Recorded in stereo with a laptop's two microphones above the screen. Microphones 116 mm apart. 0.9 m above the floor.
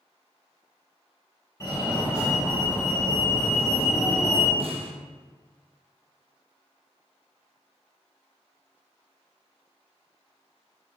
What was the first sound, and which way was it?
A fire alarm, 25° left (ahead or behind).